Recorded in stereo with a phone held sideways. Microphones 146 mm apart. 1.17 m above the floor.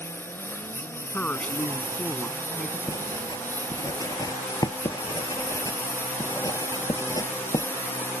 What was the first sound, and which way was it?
A lawn mower, 15° left (ahead or behind).